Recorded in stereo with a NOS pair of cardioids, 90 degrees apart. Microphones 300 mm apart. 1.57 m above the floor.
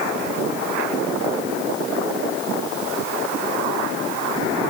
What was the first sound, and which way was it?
Only background noise.